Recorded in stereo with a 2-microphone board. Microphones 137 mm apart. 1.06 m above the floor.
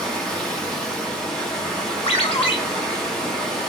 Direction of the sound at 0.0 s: 5° left (ahead or behind).